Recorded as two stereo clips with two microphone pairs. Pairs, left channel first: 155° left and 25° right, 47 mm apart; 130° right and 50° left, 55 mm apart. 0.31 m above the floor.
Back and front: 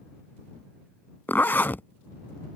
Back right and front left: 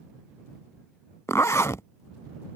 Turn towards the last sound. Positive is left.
turn(degrees=-160)